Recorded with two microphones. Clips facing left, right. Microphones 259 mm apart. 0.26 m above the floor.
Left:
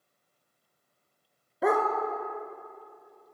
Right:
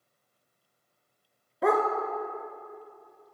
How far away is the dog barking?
About 0.8 m.